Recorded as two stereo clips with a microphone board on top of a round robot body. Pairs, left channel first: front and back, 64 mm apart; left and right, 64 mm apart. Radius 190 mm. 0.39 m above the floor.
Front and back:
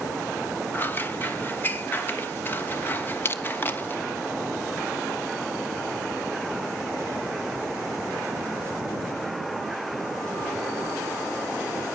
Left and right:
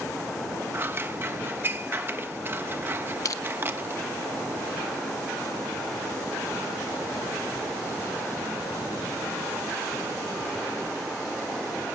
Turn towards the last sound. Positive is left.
turn(degrees=55)